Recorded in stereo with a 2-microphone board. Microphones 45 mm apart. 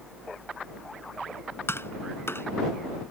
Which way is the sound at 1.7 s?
65° left (ahead or behind).